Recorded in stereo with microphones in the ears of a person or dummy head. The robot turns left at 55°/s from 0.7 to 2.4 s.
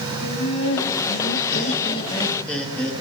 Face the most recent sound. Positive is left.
turn(degrees=5)